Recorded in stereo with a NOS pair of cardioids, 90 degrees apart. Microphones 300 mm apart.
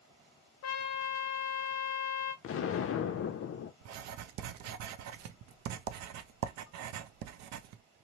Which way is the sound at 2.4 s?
50° left.